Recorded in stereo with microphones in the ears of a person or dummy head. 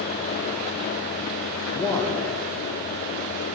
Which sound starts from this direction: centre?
A man speaking, at 1.7 s.